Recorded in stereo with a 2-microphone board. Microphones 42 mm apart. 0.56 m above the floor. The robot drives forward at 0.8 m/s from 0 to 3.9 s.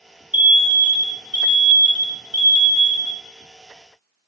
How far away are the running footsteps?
No running footsteps in this recording.